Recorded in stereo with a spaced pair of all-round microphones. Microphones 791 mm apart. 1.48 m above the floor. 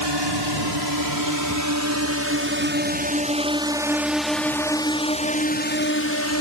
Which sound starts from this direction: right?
A drone, at 0.0 s.